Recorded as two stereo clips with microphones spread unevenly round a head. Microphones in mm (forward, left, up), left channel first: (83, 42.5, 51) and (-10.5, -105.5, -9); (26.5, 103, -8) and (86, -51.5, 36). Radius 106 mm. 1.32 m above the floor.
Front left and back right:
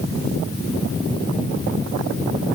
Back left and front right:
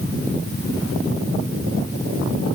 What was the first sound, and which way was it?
Only background noise.